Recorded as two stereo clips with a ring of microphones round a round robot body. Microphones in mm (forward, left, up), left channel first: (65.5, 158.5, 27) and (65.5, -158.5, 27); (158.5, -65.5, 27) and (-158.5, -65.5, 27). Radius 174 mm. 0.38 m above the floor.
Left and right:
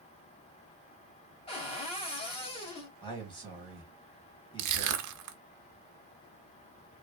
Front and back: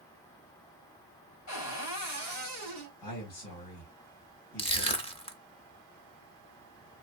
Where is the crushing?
70° right, 0.9 m.